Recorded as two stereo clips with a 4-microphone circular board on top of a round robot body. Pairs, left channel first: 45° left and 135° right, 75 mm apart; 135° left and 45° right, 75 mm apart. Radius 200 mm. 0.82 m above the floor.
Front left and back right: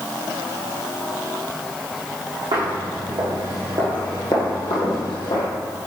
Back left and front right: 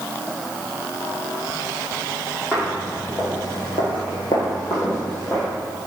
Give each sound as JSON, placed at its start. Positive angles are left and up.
{"t": 2.5, "sound": "footsteps", "azimuth_deg": -155, "distance_m": 2.5}